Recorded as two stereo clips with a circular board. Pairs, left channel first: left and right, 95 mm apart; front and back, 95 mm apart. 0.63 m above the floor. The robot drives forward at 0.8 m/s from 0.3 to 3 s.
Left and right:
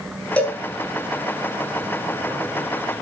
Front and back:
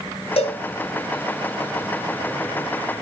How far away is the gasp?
No gasp in this recording.